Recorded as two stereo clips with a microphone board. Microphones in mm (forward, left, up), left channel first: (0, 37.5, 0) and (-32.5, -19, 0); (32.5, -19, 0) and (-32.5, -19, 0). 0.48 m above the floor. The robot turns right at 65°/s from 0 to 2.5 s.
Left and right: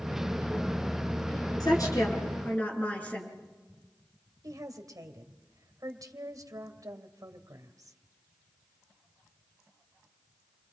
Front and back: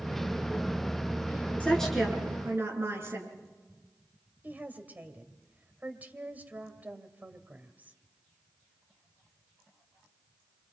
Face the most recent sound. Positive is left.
turn(degrees=-120)